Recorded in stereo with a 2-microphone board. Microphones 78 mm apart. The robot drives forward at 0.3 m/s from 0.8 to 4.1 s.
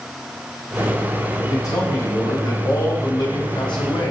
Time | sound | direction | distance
1.5 | a man speaking | 50° left (ahead or behind) | 1.3 m